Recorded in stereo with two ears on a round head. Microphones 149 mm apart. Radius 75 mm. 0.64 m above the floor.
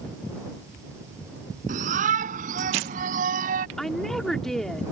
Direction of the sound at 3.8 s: 5° left (ahead or behind).